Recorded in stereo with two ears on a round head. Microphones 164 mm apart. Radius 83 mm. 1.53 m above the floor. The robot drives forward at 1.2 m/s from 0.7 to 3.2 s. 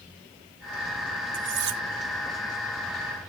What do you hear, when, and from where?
1.3 s cutlery clinking: 75° right (ahead or behind); by 1.8 s 70° right (ahead or behind)